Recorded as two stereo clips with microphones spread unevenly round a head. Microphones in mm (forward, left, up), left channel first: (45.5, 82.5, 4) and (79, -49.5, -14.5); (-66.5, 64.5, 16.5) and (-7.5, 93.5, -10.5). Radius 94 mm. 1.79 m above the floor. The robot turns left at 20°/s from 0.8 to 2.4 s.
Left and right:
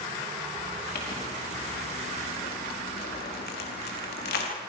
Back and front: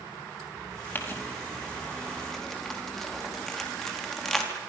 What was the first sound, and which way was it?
Crumpling, 150° left.